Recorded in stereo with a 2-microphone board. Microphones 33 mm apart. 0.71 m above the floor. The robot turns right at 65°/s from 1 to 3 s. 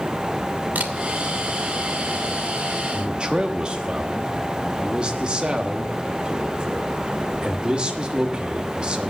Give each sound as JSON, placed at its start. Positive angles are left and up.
{"t": 0.8, "sound": "a camera shutter", "side_deg": -60, "distance_m": 1.8}
{"t": 2.9, "sound": "a man speaking", "side_deg": -25, "distance_m": 1.2}